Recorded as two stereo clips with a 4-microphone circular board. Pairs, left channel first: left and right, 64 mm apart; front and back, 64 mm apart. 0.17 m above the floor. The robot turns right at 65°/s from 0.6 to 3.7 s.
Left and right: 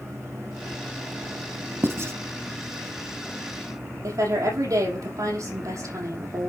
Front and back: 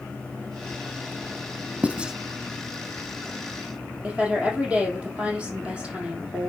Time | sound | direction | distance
1.8 | writing | 120° right | 1.0 m
4.0 | a woman speaking | 110° right | 5.5 m